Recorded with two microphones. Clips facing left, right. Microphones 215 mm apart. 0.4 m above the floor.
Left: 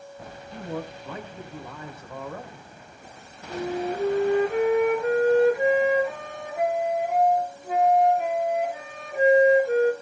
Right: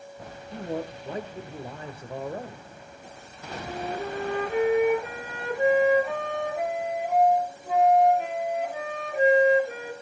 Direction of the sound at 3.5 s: 5° left (ahead or behind).